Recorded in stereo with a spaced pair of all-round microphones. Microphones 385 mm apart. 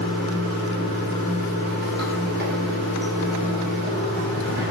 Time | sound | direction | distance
0.0 | running water | 25° right (ahead or behind) | 2.5 m